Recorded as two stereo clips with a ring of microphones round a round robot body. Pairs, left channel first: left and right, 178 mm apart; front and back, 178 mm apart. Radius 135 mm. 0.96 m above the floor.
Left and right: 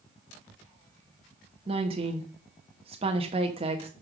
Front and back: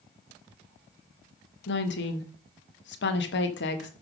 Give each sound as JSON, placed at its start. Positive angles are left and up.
{"t": 1.7, "sound": "a woman speaking", "azimuth_deg": -25, "distance_m": 1.0}